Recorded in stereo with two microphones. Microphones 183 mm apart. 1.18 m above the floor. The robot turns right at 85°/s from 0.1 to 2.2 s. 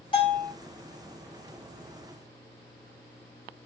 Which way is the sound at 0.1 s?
25° left.